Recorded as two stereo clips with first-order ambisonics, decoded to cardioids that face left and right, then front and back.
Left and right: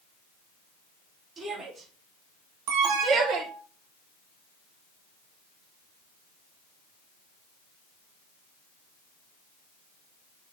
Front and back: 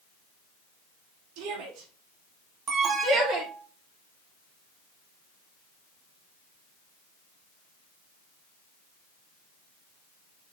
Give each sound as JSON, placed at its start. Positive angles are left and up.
{"t": 1.4, "sound": "a shout", "azimuth_deg": -160, "distance_m": 4.5}
{"t": 2.7, "sound": "an alarm", "azimuth_deg": -120, "distance_m": 3.0}